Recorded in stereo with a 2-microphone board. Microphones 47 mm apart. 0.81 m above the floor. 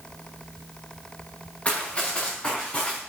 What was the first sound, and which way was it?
Running footsteps, 25° left (ahead or behind).